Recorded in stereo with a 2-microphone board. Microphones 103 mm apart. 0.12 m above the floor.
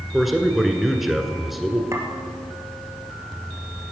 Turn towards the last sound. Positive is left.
turn(degrees=-30)  # may be behind; listen again after turning